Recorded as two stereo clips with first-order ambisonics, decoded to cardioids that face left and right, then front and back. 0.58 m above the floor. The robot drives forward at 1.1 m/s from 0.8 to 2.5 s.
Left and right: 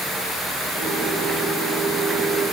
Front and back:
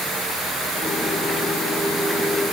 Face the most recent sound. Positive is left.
No sound to turn to.